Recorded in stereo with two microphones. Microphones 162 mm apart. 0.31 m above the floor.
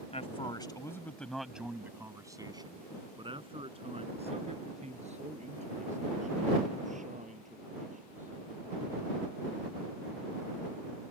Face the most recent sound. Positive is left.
turn(degrees=-50)  # may be behind; listen again after turning